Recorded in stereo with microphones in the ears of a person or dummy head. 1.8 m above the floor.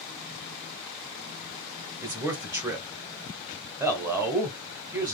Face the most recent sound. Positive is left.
turn(degrees=-10)  # may be behind; listen again after turning